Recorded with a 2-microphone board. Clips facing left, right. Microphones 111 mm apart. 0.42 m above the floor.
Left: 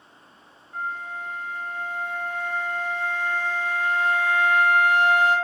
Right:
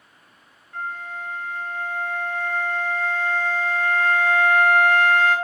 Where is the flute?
15° left (ahead or behind), 1.6 m.